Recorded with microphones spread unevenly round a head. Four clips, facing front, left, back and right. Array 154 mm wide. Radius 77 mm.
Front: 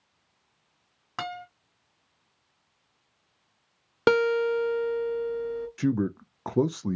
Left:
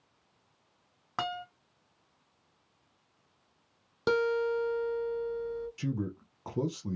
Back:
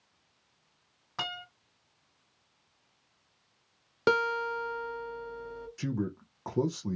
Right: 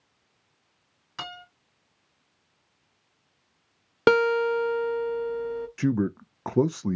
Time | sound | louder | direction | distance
1.2 | a guitar | left 5 dB, front 5 dB | 65° left | 1.9 m
4.1 | a guitar | right 7 dB, front 6 dB | 70° right | 0.7 m
5.8 | a man speaking | right 10 dB, front 7 dB | 65° right | 0.5 m